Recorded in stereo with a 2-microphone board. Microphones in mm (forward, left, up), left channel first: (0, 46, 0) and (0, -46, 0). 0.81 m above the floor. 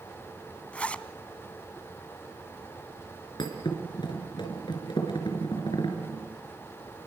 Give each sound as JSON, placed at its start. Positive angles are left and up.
{"t": 0.7, "sound": "a zipper", "side_deg": 15, "distance_m": 0.9}
{"t": 3.4, "sound": "a thud", "side_deg": 55, "distance_m": 4.5}